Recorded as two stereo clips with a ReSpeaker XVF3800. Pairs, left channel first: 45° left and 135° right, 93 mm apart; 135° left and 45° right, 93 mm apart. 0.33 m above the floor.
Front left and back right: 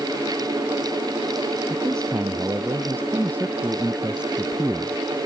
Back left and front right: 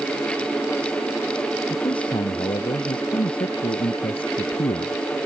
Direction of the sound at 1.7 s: 160° left.